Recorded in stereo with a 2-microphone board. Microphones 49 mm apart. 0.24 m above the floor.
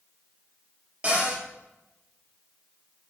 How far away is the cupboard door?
About 3.5 m.